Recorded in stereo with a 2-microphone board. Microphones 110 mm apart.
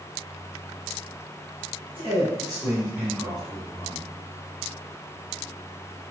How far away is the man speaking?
About 1.9 m.